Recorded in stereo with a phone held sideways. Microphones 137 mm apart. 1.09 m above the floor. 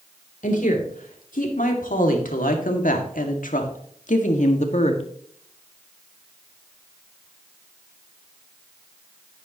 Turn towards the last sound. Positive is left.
turn(degrees=55)  # may be behind; listen again after turning